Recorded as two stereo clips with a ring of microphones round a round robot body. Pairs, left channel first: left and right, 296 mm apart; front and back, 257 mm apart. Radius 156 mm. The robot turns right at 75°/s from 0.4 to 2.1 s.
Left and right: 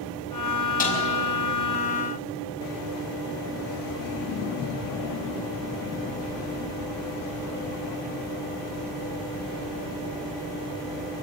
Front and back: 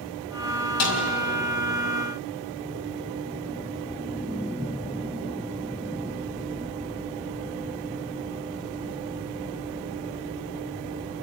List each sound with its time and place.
0.8 s a snare drum: 25° left, 5 m; by 1.1 s 45° left, 5 m